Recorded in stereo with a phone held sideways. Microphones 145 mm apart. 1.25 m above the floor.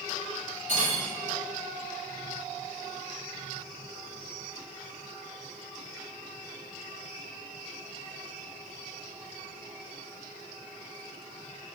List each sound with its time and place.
0.7 s cutlery clinking: 55° right (ahead or behind), 1.4 m